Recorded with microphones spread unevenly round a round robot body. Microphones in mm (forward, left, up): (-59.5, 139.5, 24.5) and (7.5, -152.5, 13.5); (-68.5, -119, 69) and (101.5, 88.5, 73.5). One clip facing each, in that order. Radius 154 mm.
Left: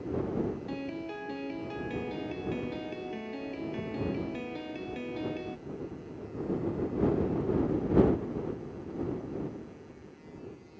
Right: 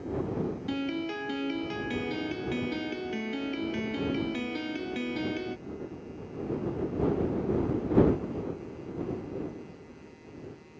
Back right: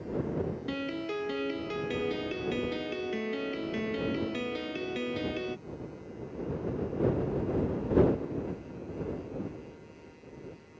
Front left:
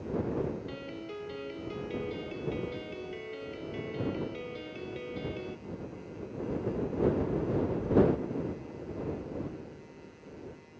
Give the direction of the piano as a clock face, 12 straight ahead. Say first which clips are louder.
Right 5 dB, back right 7 dB; 4 o'clock.